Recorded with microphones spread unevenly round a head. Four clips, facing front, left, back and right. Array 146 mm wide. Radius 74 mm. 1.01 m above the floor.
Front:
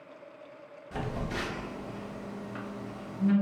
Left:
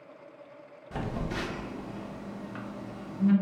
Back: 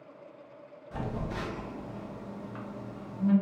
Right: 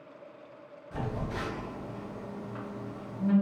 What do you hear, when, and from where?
0.9 s a phone buzzing: 55° left, 0.7 m